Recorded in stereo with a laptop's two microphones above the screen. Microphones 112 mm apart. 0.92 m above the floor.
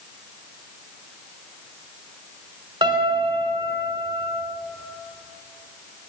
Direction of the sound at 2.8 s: 40° right (ahead or behind).